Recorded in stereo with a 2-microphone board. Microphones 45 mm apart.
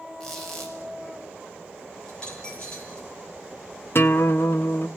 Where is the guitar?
55° left (ahead or behind), 1.0 m.